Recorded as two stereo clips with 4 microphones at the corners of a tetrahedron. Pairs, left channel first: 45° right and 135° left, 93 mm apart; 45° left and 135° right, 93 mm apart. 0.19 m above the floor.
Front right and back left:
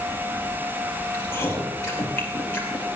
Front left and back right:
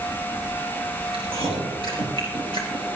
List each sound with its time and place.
1.1 s chewing: 110° right, 4 m